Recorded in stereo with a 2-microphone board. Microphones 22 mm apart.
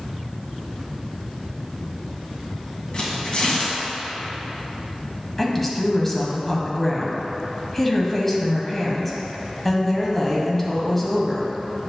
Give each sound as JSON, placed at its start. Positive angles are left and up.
{"t": 2.9, "sound": "tearing paper", "side_deg": 40, "distance_m": 1.9}
{"t": 5.4, "sound": "a woman speaking", "side_deg": 10, "distance_m": 1.0}